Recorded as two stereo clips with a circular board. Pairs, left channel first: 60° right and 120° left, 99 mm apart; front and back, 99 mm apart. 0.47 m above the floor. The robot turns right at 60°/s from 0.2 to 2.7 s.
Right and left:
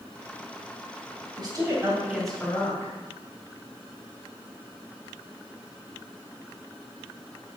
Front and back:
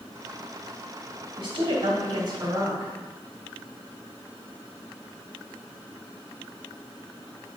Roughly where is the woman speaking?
Behind.